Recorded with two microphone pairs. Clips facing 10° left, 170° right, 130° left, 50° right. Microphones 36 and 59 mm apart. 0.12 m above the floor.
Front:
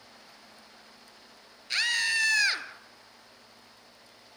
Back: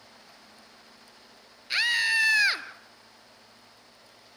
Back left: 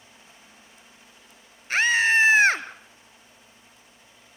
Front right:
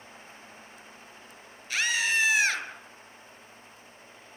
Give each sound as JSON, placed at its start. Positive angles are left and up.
{"t": 1.7, "sound": "a scream", "azimuth_deg": 120, "distance_m": 1.6}